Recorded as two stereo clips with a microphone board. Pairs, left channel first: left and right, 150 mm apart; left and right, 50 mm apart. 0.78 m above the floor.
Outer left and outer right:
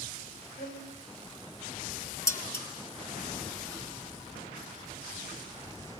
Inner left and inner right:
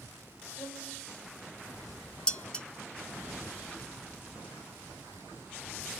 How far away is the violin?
About 9 m.